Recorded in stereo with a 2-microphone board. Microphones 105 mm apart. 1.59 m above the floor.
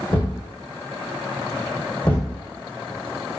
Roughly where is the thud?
Left.